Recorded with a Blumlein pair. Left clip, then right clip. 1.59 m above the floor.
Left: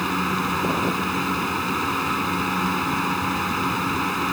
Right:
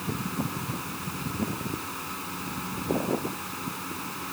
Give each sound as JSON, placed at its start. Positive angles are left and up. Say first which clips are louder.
{"t": 0.0, "sound": "a fan", "louder": "left 10 dB", "azimuth_deg": 60}